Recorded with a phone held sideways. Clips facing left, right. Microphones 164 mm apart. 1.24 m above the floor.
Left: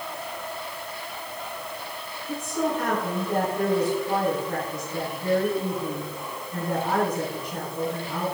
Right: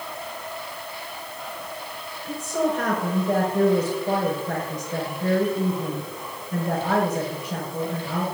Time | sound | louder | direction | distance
2.3 | a woman speaking | right 3 dB | 90° right | 5.5 m